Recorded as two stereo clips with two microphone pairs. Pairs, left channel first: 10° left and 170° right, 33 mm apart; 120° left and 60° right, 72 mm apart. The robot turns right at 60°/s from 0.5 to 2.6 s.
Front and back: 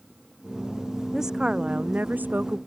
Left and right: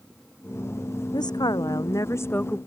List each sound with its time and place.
1.1 s a woman speaking: 110° left; by 2.6 s 165° right